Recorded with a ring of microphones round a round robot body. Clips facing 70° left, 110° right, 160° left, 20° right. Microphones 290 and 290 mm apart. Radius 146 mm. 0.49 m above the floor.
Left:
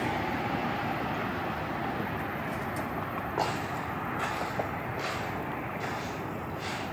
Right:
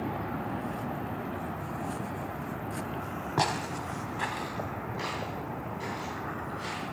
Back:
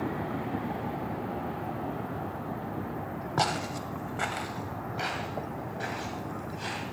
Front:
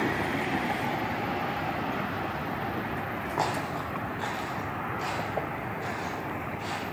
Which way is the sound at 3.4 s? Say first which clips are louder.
Right 1 dB, even; 155° right.